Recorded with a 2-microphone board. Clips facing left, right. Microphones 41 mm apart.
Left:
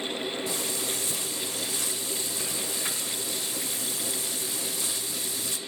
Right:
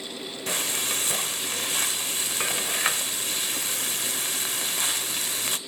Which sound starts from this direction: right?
Frying, at 0.5 s.